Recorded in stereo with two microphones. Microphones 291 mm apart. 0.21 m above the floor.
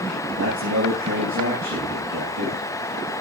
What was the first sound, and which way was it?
A man speaking, 65° right (ahead or behind).